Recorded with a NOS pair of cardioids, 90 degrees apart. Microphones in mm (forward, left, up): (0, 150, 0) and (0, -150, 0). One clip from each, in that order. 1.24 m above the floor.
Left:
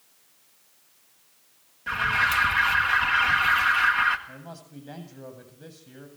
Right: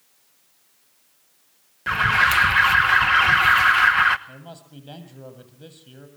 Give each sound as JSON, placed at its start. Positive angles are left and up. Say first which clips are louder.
{"t": 1.9, "sound": "an alarm", "louder": "right 5 dB", "azimuth_deg": -60, "distance_m": 1.3}
{"t": 4.3, "sound": "a man speaking", "louder": "right 1 dB", "azimuth_deg": -20, "distance_m": 7.5}